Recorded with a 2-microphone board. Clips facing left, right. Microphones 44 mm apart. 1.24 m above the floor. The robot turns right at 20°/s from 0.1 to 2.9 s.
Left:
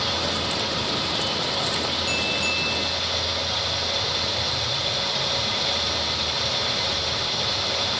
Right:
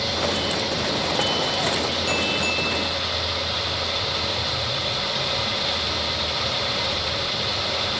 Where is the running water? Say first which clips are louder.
Right 2 dB; 135° left, 7 m; by 8.0 s 170° right, 7 m.